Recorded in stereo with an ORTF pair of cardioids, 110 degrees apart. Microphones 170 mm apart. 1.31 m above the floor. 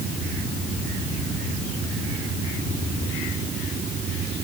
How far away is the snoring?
I don't hear snoring.